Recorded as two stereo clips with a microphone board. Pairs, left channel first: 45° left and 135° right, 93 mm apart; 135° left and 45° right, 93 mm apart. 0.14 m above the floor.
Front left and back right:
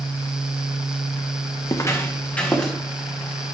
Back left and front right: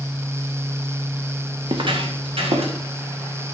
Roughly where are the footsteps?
Ahead.